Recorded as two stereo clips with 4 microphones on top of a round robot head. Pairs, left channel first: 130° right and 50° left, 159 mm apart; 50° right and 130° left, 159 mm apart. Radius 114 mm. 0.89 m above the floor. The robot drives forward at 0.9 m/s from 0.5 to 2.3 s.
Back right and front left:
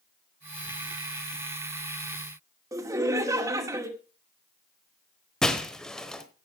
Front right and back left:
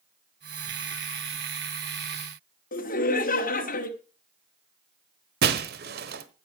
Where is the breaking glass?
145° left, 1.1 m.